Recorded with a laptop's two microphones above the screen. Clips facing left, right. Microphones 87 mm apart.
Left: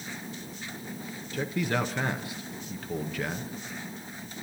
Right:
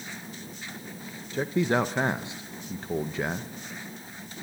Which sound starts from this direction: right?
A man speaking, at 1.3 s.